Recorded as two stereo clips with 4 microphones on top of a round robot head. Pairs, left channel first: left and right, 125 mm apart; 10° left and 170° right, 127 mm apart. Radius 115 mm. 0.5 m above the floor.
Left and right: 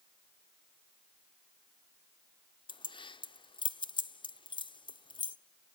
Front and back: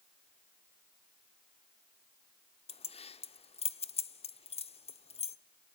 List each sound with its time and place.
2.7 s keys jangling: 40° left, 0.8 m